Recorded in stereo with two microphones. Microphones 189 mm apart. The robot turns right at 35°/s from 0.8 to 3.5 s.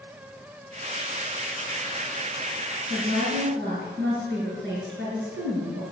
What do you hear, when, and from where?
2.9 s a woman speaking: 80° right, 6.5 m; by 5.8 s 70° right (ahead or behind), 6.5 m